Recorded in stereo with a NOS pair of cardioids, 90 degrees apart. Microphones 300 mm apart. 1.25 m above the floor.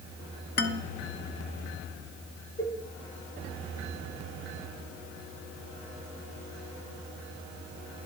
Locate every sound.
0.6 s a man speaking: 35° left, 0.9 m
2.6 s a cowbell: 10° left, 0.9 m